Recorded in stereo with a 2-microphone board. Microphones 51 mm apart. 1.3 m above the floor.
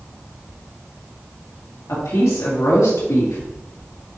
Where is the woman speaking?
85° left, 2.5 m.